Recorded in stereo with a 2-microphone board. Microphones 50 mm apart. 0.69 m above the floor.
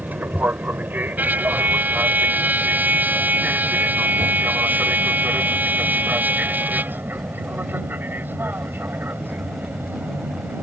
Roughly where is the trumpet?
Right.